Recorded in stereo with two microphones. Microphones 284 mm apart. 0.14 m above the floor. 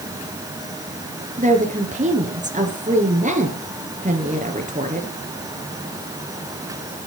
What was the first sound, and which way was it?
A woman speaking, 25° right (ahead or behind).